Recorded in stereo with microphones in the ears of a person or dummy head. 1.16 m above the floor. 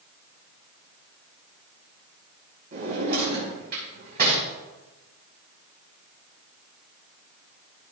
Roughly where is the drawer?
Right.